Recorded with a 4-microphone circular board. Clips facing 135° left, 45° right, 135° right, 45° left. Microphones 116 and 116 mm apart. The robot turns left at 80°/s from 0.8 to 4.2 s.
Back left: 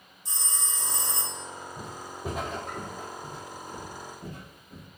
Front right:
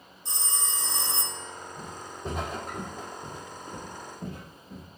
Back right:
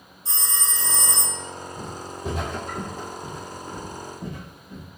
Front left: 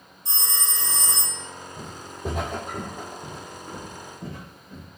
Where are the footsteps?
80° left, 1.2 m; by 4.9 s 60° right, 2 m.